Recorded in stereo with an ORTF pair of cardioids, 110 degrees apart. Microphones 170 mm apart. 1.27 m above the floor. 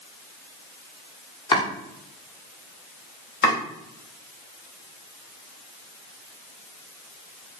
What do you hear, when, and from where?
1.5 s chopping: 30° left, 1.3 m
3.4 s chopping: 60° left, 2.5 m